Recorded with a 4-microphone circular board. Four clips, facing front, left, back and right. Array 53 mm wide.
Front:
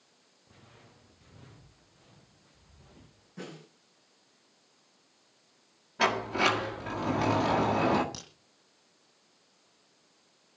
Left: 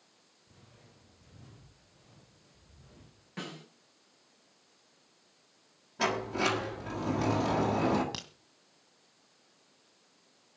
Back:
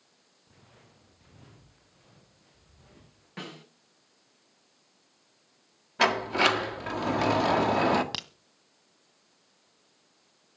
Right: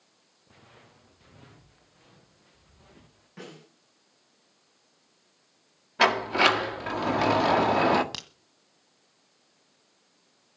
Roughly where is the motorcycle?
No motorcycle in this recording.